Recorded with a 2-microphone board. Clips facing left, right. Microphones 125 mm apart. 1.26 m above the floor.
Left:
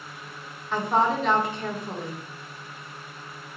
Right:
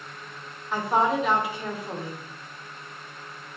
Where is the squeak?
No squeak in this recording.